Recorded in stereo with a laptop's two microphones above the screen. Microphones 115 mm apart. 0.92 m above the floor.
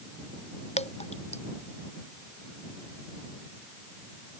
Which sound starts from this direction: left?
Dripping, at 0.8 s.